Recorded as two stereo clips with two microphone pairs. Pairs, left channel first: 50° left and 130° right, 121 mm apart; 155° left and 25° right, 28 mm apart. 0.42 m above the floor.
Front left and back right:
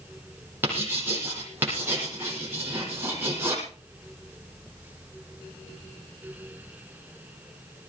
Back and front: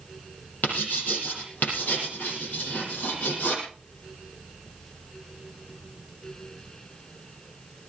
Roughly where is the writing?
Behind.